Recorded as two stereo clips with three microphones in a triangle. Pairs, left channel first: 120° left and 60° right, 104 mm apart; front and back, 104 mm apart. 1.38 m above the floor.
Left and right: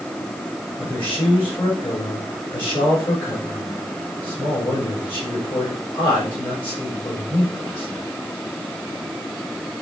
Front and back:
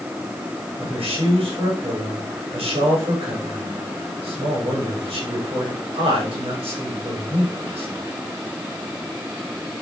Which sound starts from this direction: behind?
A man speaking, at 0.8 s.